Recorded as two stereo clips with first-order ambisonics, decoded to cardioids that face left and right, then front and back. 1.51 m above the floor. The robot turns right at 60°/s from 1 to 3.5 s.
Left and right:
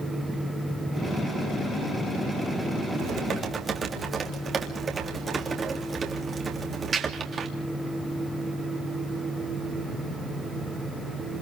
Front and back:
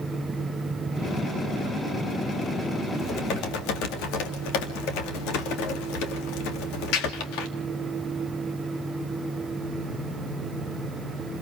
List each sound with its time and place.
3.0 s typing on a keyboard: 50° right, 2.5 m; by 7.5 s 20° right, 2.5 m